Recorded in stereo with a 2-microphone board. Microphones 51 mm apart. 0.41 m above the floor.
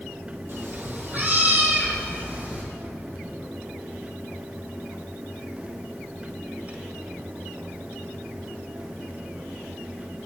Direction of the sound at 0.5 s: 45° right (ahead or behind).